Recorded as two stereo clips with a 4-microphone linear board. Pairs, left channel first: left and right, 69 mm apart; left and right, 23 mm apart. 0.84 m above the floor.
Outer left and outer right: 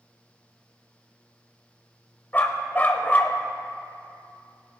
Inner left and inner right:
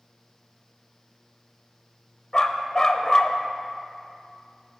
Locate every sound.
2.3 s a dog barking: 25° left (ahead or behind), 0.8 m